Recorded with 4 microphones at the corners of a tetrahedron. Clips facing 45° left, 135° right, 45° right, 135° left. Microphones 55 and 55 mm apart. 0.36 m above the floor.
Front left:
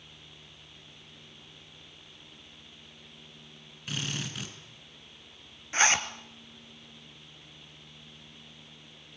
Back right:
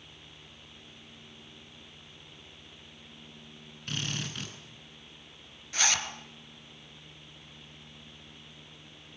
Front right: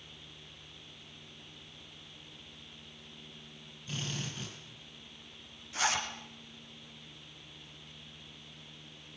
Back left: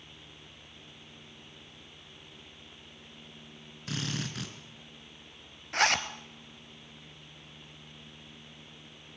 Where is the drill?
130° left, 5 m.